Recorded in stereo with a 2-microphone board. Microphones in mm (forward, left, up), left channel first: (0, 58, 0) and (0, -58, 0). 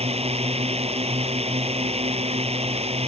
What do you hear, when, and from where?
0.0 s a drone: 55° right (ahead or behind)